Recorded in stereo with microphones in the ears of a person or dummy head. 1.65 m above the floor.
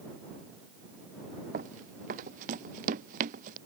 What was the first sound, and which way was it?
Running footsteps, 40° right (ahead or behind).